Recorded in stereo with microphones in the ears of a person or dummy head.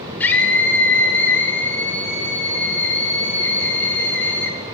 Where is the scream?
10° left (ahead or behind), 6.5 m.